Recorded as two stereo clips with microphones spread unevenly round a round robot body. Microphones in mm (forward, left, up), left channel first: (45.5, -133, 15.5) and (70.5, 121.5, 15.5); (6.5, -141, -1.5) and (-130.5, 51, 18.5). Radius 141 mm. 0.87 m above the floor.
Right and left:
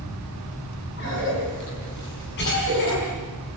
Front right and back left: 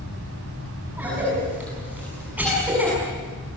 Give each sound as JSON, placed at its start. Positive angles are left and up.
{"t": 1.0, "sound": "a cough", "azimuth_deg": -150, "distance_m": 7.5}